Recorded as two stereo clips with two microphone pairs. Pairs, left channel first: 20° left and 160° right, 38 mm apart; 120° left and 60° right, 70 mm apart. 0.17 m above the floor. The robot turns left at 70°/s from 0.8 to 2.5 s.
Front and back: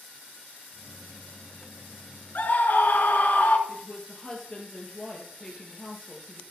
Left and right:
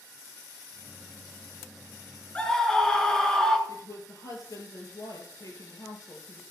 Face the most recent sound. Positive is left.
turn(degrees=90)